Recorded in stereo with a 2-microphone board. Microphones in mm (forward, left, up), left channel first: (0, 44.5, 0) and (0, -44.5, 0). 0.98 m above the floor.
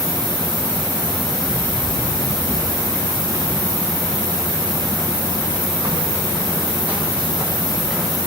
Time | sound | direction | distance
1.4 | running footsteps | 35° right (ahead or behind) | 6 m